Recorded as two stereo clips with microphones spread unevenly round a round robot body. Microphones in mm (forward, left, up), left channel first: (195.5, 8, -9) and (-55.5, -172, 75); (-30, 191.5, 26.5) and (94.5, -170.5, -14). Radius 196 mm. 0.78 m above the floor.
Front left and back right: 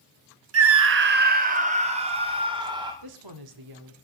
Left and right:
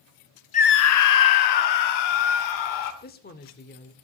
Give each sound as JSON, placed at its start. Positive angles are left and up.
{"t": 0.5, "sound": "a scream", "azimuth_deg": 180, "distance_m": 0.7}
{"t": 3.0, "sound": "a woman speaking", "azimuth_deg": 180, "distance_m": 2.0}